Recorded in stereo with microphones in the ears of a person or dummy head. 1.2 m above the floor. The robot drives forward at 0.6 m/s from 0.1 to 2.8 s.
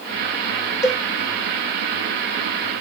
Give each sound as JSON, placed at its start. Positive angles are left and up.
{"t": 0.8, "sound": "a cowbell", "side_deg": 15, "distance_m": 1.4}